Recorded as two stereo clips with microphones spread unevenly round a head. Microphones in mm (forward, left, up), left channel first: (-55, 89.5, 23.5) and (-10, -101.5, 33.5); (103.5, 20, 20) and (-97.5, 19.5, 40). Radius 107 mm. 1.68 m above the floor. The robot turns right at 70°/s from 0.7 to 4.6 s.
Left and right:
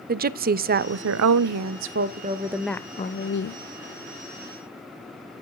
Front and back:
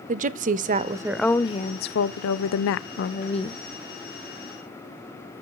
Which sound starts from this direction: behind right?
A woman speaking, at 0.1 s.